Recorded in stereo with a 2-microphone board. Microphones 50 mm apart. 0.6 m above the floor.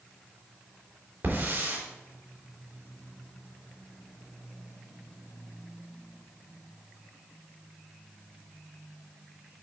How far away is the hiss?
About 3 m.